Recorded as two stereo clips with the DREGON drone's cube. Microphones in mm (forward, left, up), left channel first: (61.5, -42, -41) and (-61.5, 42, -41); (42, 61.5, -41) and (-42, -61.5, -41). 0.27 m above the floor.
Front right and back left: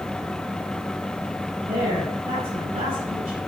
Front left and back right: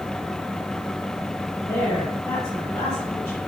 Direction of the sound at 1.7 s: 125° left.